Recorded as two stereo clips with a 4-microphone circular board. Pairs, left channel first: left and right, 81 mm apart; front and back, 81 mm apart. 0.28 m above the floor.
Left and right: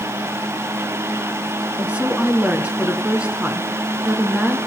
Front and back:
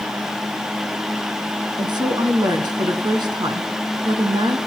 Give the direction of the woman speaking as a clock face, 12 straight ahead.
5 o'clock.